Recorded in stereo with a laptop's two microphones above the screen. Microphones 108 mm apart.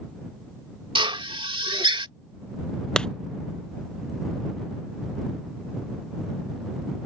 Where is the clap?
10° left (ahead or behind).